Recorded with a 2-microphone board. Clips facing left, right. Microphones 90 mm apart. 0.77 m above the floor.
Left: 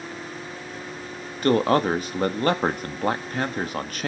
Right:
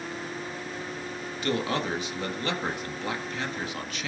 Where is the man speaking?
45° left (ahead or behind), 1.3 m.